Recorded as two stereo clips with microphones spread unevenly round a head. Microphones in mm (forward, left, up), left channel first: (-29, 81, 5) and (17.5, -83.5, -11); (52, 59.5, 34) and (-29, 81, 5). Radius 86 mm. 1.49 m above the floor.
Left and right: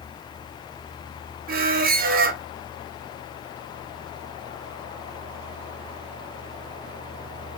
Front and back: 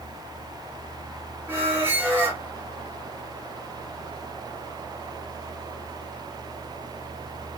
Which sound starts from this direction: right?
A squeak, at 1.5 s.